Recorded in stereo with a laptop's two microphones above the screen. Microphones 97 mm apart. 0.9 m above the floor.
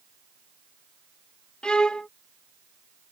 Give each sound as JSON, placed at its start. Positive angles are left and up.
{"t": 1.6, "sound": "a violin", "side_deg": 10}